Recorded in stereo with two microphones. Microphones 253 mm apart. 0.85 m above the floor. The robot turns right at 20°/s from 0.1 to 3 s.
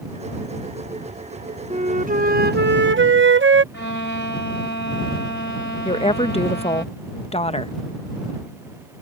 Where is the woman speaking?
25° left (ahead or behind).